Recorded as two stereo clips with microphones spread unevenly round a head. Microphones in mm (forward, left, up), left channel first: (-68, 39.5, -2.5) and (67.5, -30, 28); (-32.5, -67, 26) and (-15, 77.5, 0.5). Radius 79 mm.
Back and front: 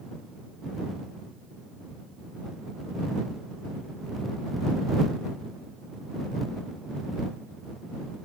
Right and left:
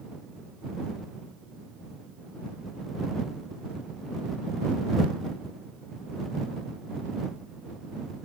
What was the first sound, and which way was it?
Only background noise.